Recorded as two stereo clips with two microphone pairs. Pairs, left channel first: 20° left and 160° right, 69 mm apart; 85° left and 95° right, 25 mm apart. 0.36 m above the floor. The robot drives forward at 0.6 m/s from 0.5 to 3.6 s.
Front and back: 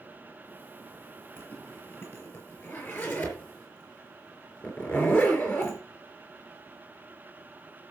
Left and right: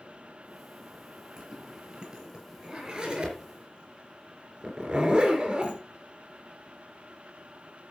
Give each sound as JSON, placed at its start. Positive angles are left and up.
{"t": 1.4, "sound": "a zipper", "azimuth_deg": -30, "distance_m": 5.0}